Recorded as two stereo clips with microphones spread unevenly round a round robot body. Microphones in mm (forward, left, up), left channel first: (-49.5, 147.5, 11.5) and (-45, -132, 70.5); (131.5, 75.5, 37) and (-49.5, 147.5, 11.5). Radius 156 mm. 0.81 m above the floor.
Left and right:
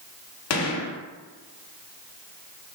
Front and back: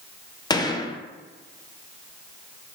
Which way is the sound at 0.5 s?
50° left.